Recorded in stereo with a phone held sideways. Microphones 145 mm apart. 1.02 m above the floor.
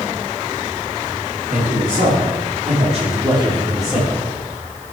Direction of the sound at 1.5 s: 85° right.